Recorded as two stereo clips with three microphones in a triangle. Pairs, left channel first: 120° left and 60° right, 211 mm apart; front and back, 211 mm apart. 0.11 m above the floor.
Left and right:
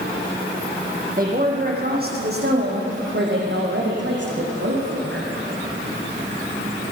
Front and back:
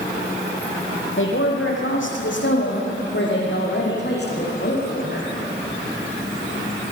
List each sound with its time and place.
1.2 s a woman speaking: 15° right, 5 m; by 5.3 s 40° right, 6.5 m